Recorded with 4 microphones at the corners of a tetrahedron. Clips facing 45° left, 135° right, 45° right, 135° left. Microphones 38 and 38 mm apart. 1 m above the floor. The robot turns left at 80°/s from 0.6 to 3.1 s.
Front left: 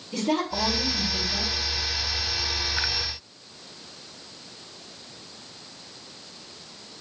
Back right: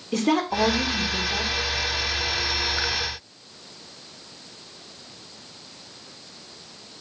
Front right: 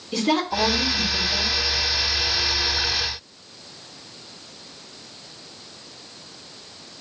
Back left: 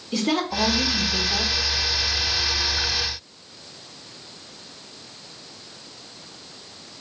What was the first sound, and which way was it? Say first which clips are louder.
A woman speaking: back right 4 dB, front right 1 dB; 135° right.